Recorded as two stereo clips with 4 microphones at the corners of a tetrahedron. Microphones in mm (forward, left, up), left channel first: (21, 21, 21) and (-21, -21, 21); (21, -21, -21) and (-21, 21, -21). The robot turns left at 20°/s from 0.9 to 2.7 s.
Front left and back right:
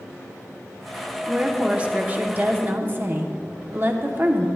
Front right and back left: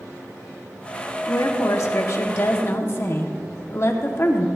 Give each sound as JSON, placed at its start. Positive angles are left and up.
{"t": 1.3, "sound": "a woman speaking", "azimuth_deg": -60, "distance_m": 1.1}